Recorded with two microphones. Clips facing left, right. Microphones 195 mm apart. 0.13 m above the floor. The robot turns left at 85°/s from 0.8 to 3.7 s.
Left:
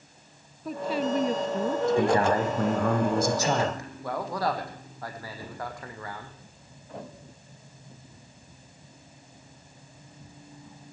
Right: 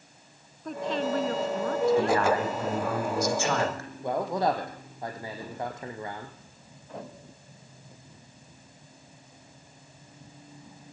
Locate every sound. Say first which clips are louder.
0.7 s a woman speaking: left 1 dB; 5° left (ahead or behind), 1.4 m; by 2.3 s 15° left (ahead or behind), 1.4 m
2.0 s a man speaking: left 1 dB; 165° left, 6.5 m; by 3.9 s 15° left, 6.5 m
4.0 s a man speaking: right 3 dB; 20° right (ahead or behind), 5 m